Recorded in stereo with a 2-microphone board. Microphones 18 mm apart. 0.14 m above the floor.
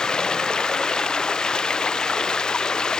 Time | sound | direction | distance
0.0 | running water | 50° left (ahead or behind) | ?